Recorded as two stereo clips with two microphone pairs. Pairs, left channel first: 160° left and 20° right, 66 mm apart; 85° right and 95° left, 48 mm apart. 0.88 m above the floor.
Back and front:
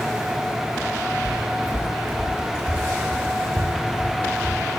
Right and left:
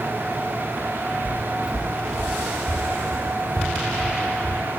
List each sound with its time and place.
1.2 s footsteps: 55° left, 1.0 m; by 4.6 s 10° left, 5 m